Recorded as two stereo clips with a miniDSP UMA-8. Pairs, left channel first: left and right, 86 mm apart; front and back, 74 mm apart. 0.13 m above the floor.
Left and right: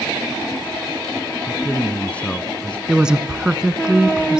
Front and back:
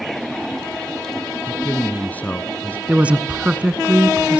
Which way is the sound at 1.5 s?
35° left.